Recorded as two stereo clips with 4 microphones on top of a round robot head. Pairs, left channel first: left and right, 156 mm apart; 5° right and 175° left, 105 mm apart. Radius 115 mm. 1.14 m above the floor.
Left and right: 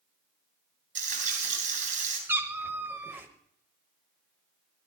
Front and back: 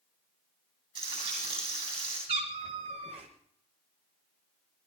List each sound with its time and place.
0.9 s frying: 125° right, 8 m
2.3 s a cat meowing: 165° right, 1.1 m